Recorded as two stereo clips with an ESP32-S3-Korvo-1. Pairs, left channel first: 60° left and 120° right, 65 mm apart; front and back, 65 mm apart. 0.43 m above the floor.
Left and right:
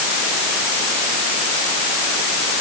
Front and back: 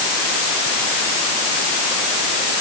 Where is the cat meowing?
I don't hear a cat meowing.